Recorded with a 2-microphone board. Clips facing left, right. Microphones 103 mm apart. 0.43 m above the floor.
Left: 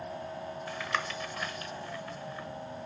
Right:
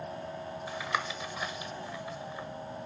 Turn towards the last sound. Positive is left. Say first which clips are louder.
# right 1 dB
turn(degrees=-15)  # may be behind; listen again after turning